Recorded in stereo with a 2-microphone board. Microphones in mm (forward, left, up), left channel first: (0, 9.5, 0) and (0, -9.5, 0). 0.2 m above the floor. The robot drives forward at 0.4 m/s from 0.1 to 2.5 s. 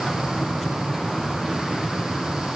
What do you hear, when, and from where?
Only background noise.